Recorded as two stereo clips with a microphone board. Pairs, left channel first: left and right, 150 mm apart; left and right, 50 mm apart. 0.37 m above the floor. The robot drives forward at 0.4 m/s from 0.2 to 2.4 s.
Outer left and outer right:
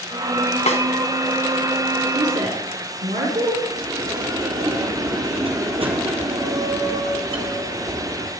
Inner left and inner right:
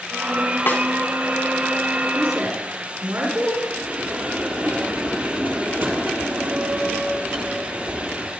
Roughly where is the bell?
Right.